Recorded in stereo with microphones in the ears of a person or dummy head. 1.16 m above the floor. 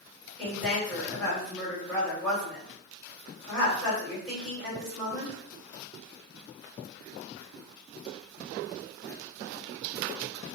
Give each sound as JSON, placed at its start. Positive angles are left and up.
{"t": 0.4, "sound": "a woman speaking", "side_deg": -5, "distance_m": 1.8}